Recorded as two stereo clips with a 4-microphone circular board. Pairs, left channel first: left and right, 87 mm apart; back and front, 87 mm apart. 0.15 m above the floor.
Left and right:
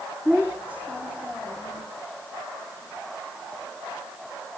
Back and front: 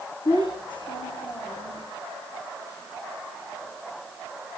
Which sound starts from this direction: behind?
A child speaking, at 0.2 s.